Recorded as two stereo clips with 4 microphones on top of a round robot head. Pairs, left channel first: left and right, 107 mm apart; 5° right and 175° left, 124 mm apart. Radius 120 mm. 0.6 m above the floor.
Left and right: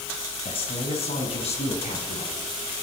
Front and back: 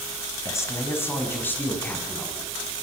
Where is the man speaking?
60° left, 5.5 m; by 2.7 s 75° left, 8 m.